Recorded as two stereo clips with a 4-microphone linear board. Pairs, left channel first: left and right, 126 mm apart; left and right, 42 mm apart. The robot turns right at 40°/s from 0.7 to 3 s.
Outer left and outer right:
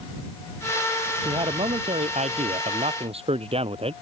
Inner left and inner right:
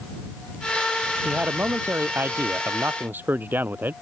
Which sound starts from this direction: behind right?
A man speaking, at 1.2 s.